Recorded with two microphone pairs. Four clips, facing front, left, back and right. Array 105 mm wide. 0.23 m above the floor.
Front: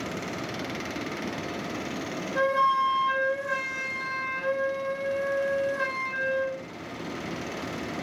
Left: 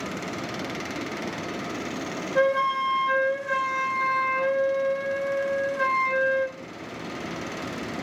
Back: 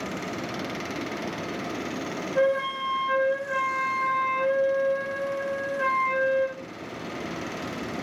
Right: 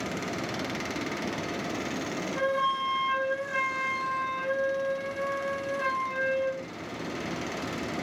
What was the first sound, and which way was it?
A flute, 65° left.